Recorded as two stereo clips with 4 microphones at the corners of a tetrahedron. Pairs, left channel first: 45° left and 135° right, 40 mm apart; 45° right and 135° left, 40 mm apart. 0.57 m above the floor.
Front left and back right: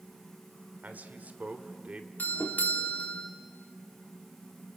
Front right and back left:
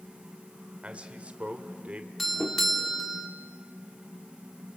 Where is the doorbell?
40° left, 2 m.